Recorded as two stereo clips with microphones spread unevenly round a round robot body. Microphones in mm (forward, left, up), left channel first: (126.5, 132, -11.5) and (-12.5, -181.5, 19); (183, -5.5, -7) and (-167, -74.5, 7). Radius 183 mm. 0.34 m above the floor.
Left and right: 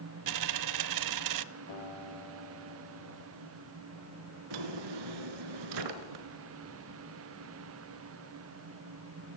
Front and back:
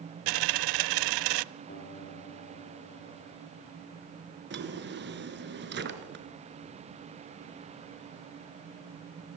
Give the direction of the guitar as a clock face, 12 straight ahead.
9 o'clock.